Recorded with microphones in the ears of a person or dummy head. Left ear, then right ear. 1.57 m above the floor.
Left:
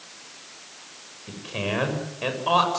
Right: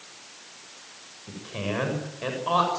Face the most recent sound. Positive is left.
turn(degrees=10)  # may be behind; listen again after turning